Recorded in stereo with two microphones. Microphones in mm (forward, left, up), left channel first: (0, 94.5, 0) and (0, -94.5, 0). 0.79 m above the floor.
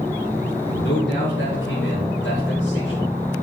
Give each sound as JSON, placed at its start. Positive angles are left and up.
{"t": 0.8, "sound": "a man speaking", "side_deg": 70, "distance_m": 2.5}